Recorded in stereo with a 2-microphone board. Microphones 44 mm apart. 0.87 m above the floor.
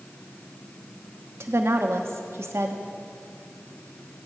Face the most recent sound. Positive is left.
turn(degrees=-75)  # may be behind; listen again after turning